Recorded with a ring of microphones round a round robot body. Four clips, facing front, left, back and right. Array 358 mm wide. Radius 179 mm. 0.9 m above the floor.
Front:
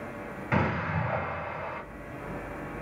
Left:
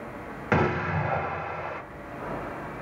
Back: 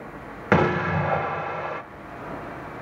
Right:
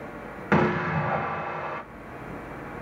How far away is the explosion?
About 1.2 m.